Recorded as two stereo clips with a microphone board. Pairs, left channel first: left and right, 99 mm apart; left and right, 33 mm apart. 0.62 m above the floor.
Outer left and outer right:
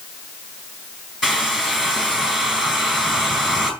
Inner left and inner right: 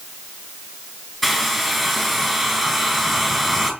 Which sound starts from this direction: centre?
A hair dryer, at 1.2 s.